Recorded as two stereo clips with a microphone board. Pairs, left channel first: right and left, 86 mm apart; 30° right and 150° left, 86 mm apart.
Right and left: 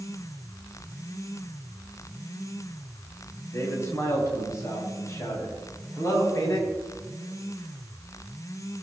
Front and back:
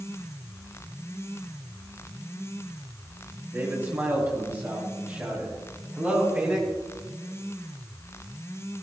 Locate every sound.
3.5 s a man speaking: 145° right, 5 m; by 6.7 s 140° right, 8 m